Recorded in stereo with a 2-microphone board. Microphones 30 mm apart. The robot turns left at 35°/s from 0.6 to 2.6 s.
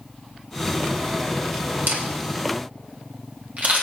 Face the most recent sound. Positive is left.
turn(degrees=-50)  # may be behind; listen again after turning